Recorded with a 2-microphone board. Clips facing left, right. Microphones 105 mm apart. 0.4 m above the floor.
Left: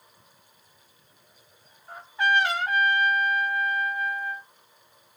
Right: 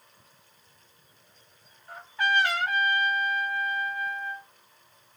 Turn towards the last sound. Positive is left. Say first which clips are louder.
# left 3 dB
turn(degrees=25)  # may be behind; listen again after turning